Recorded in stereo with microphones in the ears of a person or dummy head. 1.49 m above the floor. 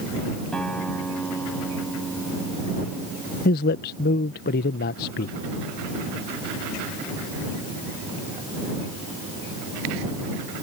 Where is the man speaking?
50° left (ahead or behind).